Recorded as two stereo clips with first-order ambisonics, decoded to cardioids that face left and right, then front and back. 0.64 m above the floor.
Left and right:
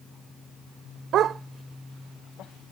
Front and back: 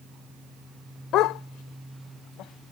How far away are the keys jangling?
I don't hear keys jangling.